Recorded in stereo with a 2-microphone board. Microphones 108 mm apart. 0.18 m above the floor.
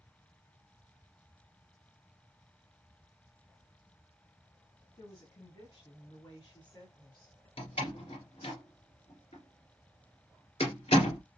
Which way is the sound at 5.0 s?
55° left (ahead or behind).